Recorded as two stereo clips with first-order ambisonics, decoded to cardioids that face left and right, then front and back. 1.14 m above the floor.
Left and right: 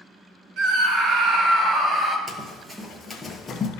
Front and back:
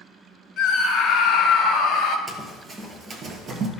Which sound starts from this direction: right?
Running footsteps, at 2.3 s.